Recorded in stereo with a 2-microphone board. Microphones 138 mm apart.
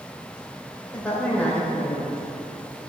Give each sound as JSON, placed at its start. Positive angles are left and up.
{"t": 0.9, "sound": "a woman speaking", "side_deg": 10, "distance_m": 3.0}